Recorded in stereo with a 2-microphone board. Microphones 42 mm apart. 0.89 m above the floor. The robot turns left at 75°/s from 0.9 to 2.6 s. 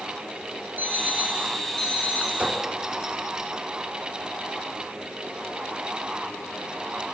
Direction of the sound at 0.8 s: 130° right.